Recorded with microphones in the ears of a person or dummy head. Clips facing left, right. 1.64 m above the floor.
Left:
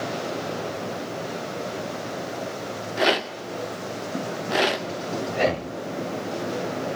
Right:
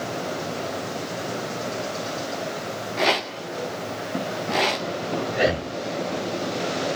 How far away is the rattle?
About 0.9 m.